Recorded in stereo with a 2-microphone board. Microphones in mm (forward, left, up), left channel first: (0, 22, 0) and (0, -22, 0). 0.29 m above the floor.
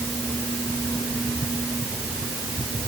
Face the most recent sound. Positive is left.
No sound to turn to.